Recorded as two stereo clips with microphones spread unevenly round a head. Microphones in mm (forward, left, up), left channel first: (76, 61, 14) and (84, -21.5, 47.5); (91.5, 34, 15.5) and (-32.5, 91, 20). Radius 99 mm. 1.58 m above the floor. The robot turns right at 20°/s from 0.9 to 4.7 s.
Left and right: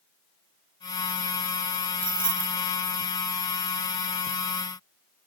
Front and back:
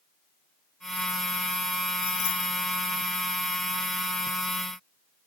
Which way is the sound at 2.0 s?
65° right.